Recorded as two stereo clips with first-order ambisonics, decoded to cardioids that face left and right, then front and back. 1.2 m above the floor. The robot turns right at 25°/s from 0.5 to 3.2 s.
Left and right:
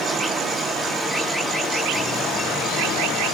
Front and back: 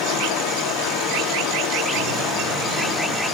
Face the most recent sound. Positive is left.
turn(degrees=55)